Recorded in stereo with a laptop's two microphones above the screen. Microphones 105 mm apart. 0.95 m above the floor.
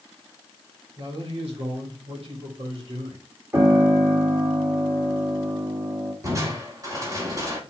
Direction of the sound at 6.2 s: 35° right (ahead or behind).